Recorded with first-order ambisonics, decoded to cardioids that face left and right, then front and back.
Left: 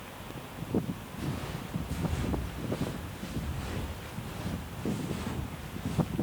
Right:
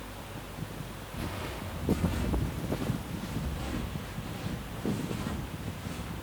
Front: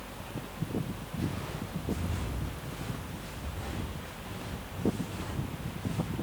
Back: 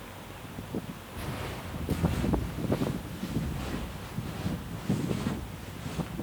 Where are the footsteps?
160° right, 4.5 m; by 6.1 s straight behind, 7.5 m.